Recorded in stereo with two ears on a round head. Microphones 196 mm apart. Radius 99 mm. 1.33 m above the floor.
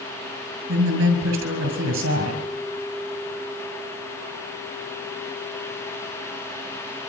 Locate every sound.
0.7 s a woman speaking: 60° right (ahead or behind), 7 m